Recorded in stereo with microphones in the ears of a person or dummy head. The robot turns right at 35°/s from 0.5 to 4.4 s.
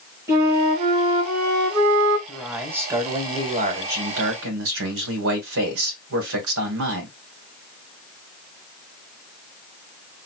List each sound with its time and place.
0.3 s a flute: 165° right, 2.5 m; by 2.2 s 105° right, 2.5 m
2.3 s a man speaking: 175° left, 1.5 m; by 7.1 s 110° right, 1.5 m